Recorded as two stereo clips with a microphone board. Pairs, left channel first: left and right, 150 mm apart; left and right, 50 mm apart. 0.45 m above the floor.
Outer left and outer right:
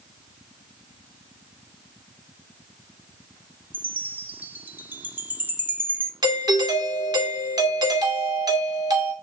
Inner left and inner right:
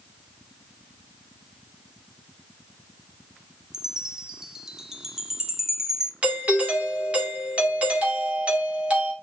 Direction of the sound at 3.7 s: 10° right (ahead or behind).